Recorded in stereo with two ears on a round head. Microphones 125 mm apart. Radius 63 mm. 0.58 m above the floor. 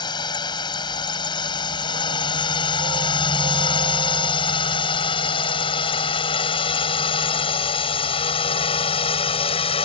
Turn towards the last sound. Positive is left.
turn(degrees=40)  # may be behind; listen again after turning